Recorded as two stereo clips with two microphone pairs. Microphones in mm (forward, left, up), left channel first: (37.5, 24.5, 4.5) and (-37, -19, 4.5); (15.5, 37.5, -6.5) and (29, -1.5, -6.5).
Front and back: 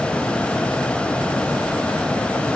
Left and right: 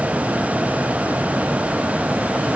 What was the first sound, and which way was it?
Only background noise.